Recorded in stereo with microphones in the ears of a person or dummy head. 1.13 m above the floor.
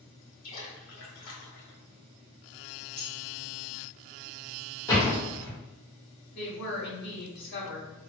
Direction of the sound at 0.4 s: 75° left (ahead or behind).